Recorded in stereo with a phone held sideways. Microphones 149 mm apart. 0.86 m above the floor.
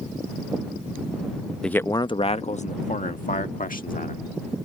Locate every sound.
1.6 s a man speaking: 5° left (ahead or behind); by 4.3 s 75° left (ahead or behind)